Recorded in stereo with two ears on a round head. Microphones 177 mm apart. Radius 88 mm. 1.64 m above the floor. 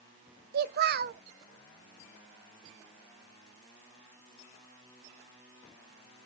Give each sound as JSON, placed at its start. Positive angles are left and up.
{"t": 0.5, "sound": "a child speaking", "side_deg": -50, "distance_m": 0.8}